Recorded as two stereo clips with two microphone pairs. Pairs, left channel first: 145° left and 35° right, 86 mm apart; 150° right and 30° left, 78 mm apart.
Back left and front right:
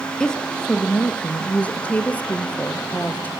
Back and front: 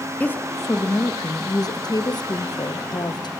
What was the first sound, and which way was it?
A woman speaking, 155° right.